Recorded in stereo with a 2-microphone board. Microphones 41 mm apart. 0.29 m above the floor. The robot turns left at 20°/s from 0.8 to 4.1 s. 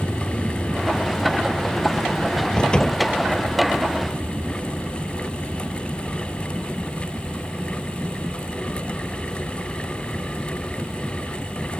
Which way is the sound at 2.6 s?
20° left (ahead or behind).